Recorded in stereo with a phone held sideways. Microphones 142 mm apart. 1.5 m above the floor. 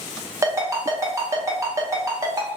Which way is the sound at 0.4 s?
20° right (ahead or behind).